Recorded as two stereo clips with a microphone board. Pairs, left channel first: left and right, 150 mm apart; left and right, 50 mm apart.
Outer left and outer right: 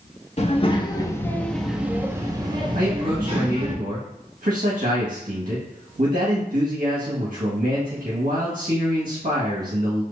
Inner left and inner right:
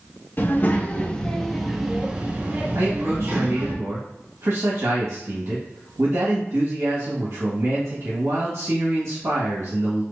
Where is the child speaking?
45° left (ahead or behind), 1.0 m; by 3.8 s 45° right (ahead or behind), 1.6 m.